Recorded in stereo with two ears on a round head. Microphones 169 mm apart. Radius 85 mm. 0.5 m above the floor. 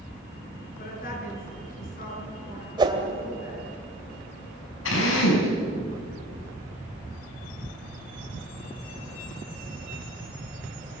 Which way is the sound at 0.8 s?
50° left (ahead or behind).